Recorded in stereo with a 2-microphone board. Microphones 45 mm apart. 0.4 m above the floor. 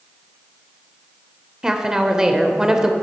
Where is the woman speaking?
15° right (ahead or behind), 1.1 m.